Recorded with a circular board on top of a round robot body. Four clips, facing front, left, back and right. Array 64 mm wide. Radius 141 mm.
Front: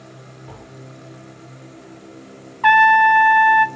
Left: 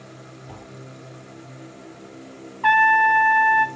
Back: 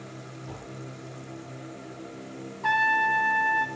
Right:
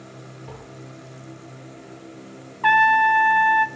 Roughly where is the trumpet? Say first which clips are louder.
Even, front 12 dB; ahead.